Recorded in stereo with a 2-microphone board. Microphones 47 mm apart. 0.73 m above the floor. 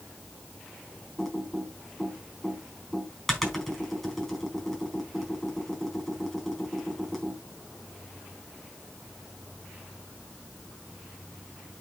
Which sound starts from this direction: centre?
Typing on a keyboard, at 1.2 s.